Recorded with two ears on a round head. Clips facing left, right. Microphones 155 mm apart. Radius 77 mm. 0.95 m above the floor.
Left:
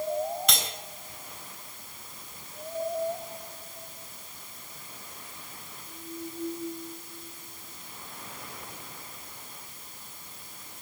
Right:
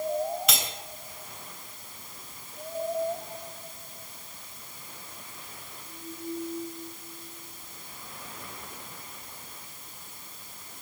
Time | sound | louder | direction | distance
0.5 | cutlery clinking | right 1 dB | 5° right (ahead or behind) | 3 m